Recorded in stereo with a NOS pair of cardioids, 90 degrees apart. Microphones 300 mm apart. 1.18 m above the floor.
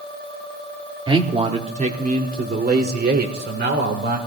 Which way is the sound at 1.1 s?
15° right.